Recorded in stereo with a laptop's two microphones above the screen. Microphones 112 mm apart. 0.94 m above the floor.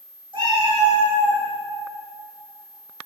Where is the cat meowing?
45° right (ahead or behind), 0.7 m; by 1.4 s 25° left (ahead or behind), 0.6 m.